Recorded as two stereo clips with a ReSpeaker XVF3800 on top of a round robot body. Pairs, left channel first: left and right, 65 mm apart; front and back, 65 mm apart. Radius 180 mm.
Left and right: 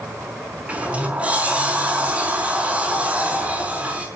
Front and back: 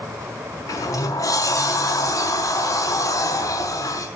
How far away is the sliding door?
About 5.5 m.